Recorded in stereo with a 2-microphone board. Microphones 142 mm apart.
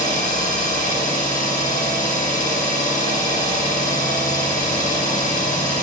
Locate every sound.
0.0 s an engine running: 75° left (ahead or behind), 4 m